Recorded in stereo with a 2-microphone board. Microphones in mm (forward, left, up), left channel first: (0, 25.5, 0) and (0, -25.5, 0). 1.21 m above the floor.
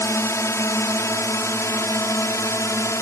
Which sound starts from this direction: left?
A drone, at 0.0 s.